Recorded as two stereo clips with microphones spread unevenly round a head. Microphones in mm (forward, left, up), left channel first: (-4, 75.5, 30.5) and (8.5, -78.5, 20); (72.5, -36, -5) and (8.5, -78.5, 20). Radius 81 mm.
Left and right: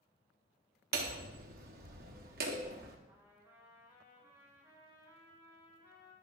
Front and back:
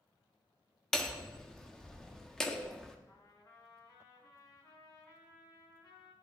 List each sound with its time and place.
0.9 s hammering: 55° right, 1.1 m
3.1 s a trumpet: 10° right, 4 m